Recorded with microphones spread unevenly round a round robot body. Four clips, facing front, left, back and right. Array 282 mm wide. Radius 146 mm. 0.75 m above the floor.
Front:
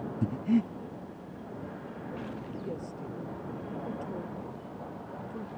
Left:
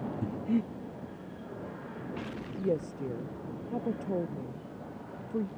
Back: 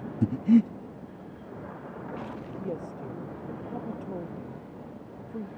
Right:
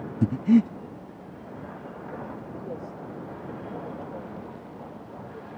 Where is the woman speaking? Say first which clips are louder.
Left 9 dB, back 5 dB; 100° left.